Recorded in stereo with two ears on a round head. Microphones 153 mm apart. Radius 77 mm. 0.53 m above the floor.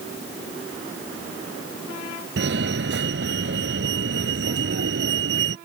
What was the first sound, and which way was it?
A fire alarm, 65° right (ahead or behind).